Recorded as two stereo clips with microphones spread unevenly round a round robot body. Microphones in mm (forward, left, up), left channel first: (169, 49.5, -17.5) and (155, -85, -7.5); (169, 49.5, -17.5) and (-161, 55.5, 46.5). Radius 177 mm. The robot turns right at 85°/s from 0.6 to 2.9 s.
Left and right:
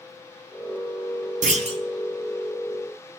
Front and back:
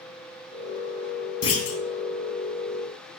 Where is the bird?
I don't hear a bird.